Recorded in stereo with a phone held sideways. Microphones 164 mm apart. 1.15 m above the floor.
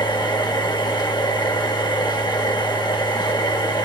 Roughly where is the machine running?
Left.